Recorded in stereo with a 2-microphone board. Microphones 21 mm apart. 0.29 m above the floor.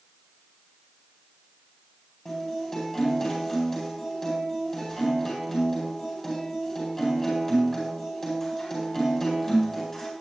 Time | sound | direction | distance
2.2 | a guitar | 25° left (ahead or behind) | 10 m